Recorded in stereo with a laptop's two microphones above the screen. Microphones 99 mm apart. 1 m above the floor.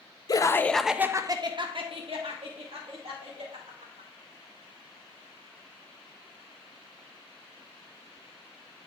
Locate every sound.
0.3 s laughter: 40° left (ahead or behind), 0.7 m; by 4.1 s 80° right, 3 m